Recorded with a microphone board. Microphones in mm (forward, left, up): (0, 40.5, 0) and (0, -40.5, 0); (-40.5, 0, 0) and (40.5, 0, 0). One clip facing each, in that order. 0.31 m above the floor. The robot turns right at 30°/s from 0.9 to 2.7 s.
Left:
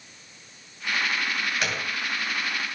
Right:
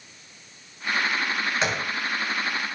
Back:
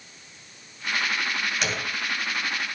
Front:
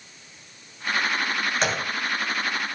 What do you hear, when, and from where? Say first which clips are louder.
1.6 s a gunshot: right 3 dB, front 4 dB; 35° right, 2.5 m; by 1.9 s 25° right, 2.5 m